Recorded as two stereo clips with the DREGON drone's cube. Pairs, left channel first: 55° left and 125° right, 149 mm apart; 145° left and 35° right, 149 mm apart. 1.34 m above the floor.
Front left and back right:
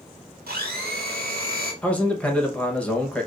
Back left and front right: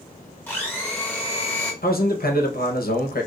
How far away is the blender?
About 1.4 m.